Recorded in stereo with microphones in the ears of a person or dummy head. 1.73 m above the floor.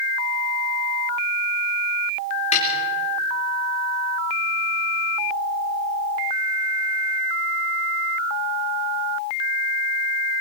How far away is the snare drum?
About 4 m.